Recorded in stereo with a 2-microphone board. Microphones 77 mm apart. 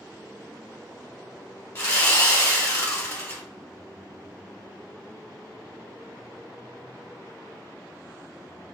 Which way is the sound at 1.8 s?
30° left (ahead or behind).